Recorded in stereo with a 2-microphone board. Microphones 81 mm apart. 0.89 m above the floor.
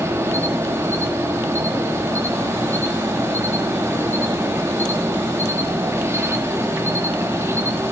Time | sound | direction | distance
0.0 | an insect | 30° right (ahead or behind) | 1.1 m